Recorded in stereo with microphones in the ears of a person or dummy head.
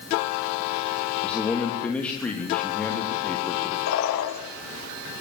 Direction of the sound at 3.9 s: 80° left.